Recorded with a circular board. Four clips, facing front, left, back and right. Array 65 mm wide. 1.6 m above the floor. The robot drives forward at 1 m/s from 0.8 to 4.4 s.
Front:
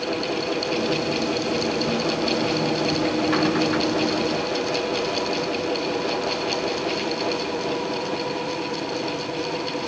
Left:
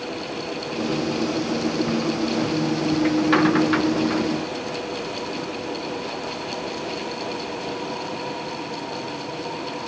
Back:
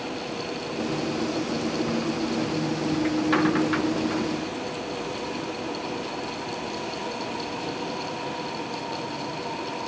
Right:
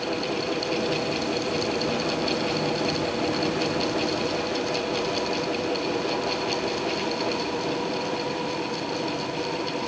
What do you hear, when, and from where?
Only background noise.